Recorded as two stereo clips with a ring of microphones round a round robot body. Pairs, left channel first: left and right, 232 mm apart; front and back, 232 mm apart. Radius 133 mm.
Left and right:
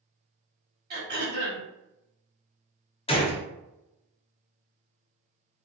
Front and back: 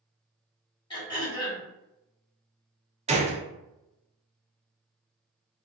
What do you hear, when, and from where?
0.9 s throat clearing: 65° right, 1.6 m
3.1 s a gunshot: 140° left, 0.7 m